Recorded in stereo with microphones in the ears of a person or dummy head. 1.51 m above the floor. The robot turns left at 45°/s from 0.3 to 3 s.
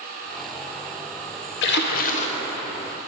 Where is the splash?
65° left, 0.7 m; by 2.5 s 30° left, 0.7 m.